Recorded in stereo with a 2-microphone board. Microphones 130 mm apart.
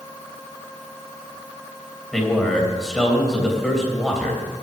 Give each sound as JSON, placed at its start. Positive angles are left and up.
{"t": 2.1, "sound": "a man speaking", "side_deg": 0, "distance_m": 3.0}